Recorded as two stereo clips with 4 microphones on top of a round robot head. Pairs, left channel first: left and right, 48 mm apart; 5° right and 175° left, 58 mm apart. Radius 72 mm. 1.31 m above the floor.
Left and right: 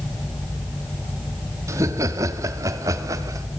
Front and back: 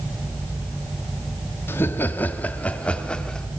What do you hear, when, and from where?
1.7 s laughter: 60° right, 2.5 m; by 3.5 s 85° right, 3 m